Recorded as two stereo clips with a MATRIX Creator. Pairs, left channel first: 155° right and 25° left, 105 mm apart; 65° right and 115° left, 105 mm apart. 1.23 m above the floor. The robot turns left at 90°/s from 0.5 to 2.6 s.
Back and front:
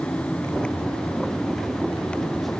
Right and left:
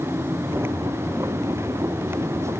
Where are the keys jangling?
No keys jangling in this recording.